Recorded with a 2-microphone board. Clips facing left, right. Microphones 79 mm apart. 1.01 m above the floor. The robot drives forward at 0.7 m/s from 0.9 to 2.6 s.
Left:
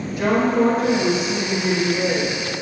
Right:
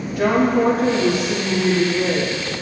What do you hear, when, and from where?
0.2 s a woman speaking: 70° right (ahead or behind), 2.5 m; by 2.3 s 55° right (ahead or behind), 3 m